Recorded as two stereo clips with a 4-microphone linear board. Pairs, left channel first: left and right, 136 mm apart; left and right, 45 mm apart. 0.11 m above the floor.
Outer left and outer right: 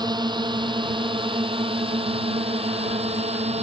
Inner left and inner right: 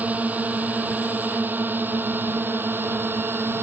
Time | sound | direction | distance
0.0 | a drone | 30° right (ahead or behind) | ?